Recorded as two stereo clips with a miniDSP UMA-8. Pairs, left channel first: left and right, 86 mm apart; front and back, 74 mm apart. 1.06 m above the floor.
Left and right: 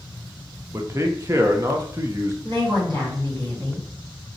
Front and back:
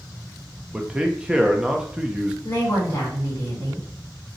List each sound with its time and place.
0.7 s a man speaking: 110° right, 0.7 m
2.4 s a woman speaking: 60° right, 3 m